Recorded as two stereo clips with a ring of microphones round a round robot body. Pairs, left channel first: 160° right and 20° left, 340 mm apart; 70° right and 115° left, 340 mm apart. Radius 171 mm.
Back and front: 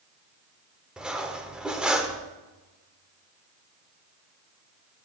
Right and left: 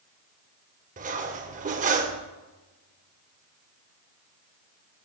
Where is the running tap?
I don't hear a running tap.